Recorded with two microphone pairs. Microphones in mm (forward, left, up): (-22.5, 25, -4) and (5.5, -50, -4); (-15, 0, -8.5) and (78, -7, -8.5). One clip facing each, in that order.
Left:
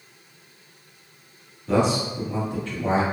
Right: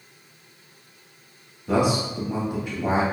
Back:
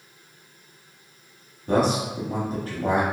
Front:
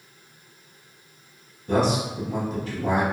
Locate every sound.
1.7 s a man speaking: 145° right, 0.9 m